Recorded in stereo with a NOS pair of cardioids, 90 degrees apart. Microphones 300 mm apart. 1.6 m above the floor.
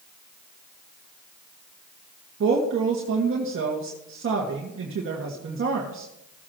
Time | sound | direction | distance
2.4 | a woman speaking | 45° right | 1.8 m